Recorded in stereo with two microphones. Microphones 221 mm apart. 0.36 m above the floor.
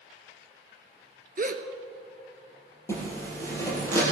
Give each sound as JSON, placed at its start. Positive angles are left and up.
{"t": 1.4, "sound": "a gasp", "side_deg": -40, "distance_m": 0.9}
{"t": 2.9, "sound": "a zipper", "side_deg": 10, "distance_m": 4.5}